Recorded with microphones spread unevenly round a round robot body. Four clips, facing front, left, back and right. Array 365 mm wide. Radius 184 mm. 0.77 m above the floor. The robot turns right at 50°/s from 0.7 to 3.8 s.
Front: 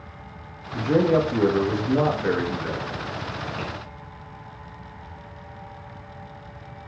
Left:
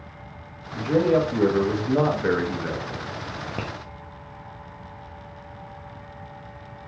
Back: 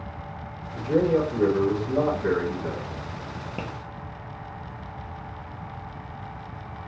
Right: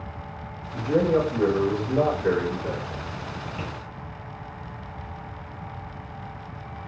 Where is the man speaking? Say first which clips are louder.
Left 1 dB, front 2 dB; 10° right, 1.3 m; by 3.1 s 105° left, 1.3 m.